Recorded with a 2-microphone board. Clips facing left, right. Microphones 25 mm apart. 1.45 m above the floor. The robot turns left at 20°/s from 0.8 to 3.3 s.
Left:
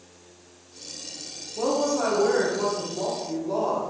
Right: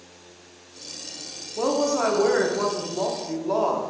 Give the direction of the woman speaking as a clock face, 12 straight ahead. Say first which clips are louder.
Right 2 dB; 1 o'clock.